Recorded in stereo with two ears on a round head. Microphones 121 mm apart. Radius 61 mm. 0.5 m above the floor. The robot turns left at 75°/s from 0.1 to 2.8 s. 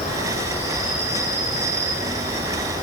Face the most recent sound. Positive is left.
turn(degrees=-150)